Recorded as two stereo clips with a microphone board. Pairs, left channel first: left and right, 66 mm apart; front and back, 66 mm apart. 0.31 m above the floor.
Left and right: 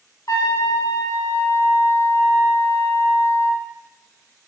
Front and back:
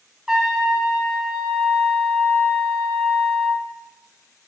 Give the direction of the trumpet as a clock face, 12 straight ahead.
9 o'clock.